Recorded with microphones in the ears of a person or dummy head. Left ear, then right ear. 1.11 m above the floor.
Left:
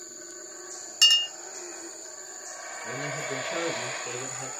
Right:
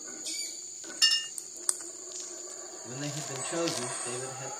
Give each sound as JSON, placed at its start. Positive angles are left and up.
{"t": 1.0, "sound": "a clink", "side_deg": 75, "distance_m": 1.1}
{"t": 2.8, "sound": "a man speaking", "side_deg": 20, "distance_m": 1.5}